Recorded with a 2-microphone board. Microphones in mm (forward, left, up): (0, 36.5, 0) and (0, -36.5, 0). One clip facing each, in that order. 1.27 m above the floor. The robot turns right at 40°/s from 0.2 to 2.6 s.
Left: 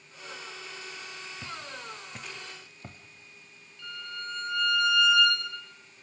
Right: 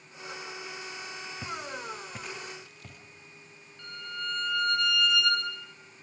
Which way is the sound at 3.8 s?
55° right (ahead or behind).